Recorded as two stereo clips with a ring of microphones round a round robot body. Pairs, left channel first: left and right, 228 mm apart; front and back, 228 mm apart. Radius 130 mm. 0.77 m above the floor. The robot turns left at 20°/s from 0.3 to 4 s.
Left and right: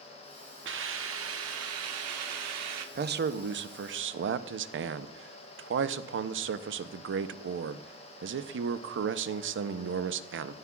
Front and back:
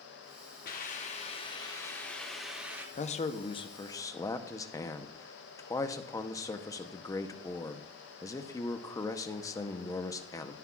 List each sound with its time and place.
0.7 s a hiss: 55° right, 1.2 m; by 2.9 s 100° right, 1.2 m
3.0 s a man speaking: 55° right, 0.7 m; by 10.5 s 75° right, 0.7 m